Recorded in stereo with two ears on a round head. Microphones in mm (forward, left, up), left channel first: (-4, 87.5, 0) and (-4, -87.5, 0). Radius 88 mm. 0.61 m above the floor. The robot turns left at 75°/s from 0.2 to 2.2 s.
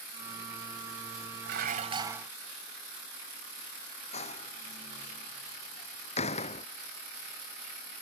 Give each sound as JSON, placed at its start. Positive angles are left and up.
{"t": 1.4, "sound": "dishes clattering", "azimuth_deg": -115}
{"t": 4.1, "sound": "a door slam", "side_deg": 35}